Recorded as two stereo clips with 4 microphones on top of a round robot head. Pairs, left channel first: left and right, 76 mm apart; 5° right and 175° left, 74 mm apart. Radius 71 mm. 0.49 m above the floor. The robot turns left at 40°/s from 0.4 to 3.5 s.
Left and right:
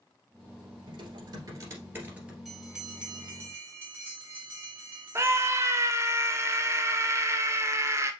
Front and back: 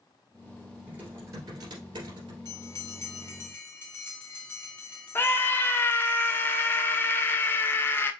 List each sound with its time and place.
0.9 s typing on a keyboard: 110° right, 2 m; by 2.4 s 170° right, 2 m
2.5 s a bell: straight ahead, 1.6 m; by 5.9 s 45° right, 1.6 m
5.2 s a scream: 55° right, 0.9 m